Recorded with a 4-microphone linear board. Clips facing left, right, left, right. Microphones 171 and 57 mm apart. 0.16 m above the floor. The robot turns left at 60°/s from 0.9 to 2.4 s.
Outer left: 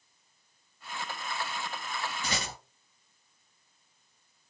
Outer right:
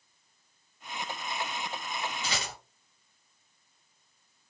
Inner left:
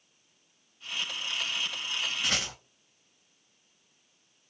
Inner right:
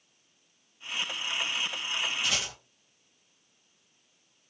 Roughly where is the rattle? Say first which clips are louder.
Outer left 1 dB, even; left.